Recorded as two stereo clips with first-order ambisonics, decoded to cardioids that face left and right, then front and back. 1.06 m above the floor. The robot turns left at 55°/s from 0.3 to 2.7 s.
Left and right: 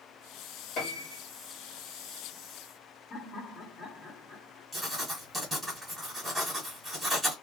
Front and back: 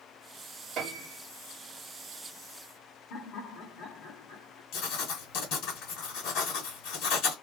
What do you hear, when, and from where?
0.8 s a piano: 125° left, 2 m; by 1.2 s 100° left, 2 m
3.1 s laughter: 30° left, 2.5 m
4.7 s writing: 5° right, 1.7 m